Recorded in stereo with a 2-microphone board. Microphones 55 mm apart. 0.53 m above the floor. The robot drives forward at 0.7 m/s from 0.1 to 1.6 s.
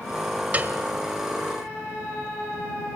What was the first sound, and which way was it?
A piano, 30° right (ahead or behind).